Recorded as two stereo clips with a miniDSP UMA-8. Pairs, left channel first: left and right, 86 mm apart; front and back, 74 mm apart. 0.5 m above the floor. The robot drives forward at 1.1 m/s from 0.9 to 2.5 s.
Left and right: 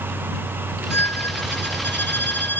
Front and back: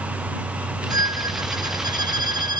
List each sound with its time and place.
0.9 s a violin: 155° left